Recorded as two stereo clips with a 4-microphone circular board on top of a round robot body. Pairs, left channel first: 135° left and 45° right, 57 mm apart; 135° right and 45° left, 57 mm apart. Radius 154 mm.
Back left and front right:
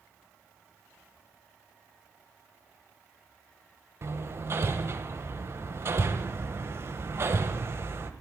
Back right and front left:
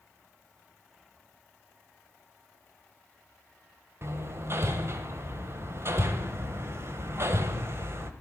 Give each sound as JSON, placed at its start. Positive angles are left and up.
{"t": 4.0, "sound": "hammering", "azimuth_deg": 0, "distance_m": 1.0}